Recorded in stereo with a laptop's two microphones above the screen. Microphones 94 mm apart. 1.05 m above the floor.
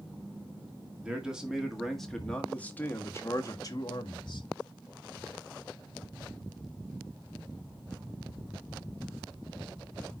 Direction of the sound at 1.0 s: 10° right (ahead or behind).